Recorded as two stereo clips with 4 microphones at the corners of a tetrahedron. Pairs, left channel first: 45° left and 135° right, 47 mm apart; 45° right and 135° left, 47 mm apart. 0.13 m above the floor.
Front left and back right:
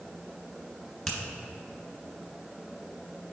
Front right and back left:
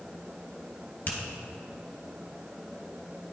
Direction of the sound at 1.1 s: 40° right.